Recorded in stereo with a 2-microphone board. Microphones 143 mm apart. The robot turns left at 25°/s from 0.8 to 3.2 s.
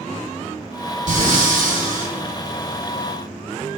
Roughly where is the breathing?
Right.